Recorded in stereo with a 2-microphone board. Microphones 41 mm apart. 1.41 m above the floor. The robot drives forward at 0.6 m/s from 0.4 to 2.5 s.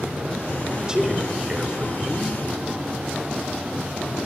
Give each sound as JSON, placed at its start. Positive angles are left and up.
{"t": 0.8, "sound": "a man speaking", "side_deg": -20, "distance_m": 4.5}